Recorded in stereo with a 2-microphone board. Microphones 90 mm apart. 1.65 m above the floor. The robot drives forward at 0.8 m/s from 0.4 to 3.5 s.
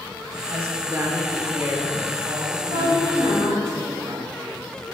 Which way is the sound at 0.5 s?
35° right (ahead or behind).